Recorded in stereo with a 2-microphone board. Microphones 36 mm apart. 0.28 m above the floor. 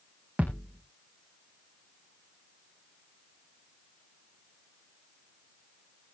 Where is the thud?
45° right (ahead or behind), 4 m.